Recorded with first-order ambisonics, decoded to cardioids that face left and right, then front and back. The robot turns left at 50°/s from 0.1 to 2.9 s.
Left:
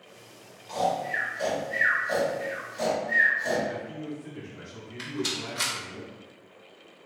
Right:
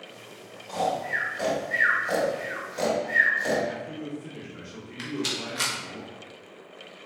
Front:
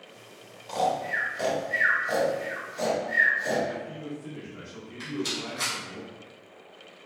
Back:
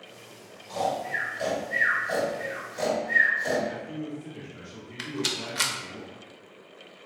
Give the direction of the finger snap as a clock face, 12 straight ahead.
I don't hear a finger snap.